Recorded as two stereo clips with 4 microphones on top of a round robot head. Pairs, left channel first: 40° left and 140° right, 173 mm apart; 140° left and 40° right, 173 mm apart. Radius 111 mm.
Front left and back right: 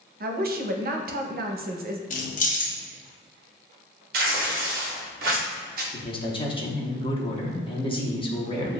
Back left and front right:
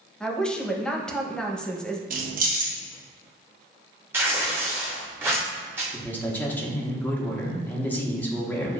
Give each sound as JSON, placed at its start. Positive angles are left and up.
{"t": 0.2, "sound": "a woman speaking", "azimuth_deg": -135, "distance_m": 0.7}
{"t": 2.1, "sound": "keys jangling", "azimuth_deg": -5, "distance_m": 0.8}
{"t": 4.1, "sound": "tearing paper", "azimuth_deg": -115, "distance_m": 0.5}
{"t": 5.9, "sound": "a man speaking", "azimuth_deg": 70, "distance_m": 1.0}